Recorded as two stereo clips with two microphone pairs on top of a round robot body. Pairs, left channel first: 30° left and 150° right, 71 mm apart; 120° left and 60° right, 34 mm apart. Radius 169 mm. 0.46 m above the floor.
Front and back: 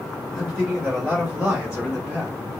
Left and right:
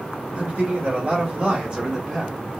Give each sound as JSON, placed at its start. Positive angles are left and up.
{"t": 0.3, "sound": "a man speaking", "azimuth_deg": -75, "distance_m": 1.5}